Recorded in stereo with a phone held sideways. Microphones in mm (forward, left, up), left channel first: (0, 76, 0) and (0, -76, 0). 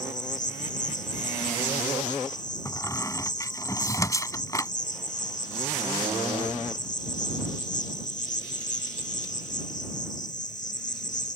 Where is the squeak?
20° left (ahead or behind).